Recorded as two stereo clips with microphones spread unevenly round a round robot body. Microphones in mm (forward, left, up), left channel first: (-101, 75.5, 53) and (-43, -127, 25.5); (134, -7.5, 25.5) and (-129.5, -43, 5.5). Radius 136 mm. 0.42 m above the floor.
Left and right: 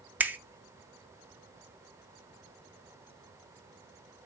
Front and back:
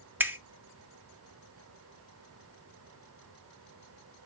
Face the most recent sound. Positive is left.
turn(degrees=-115)